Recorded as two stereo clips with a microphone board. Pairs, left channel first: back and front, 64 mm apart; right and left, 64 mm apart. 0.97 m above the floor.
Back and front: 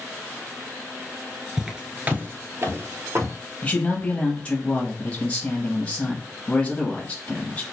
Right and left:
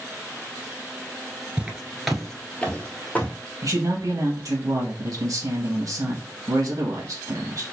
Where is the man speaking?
110° left, 1.1 m.